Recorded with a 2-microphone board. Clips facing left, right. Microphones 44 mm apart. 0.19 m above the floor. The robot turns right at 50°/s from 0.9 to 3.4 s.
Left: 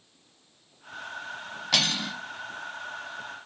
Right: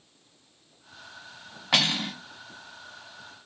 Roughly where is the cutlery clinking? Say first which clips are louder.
Right 2 dB; right.